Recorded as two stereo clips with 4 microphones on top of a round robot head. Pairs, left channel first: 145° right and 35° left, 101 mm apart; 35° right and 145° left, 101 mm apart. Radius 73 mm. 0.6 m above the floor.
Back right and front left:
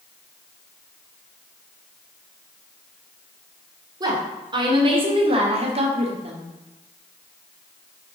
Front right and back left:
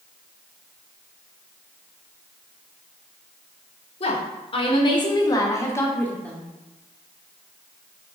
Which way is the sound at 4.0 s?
15° right.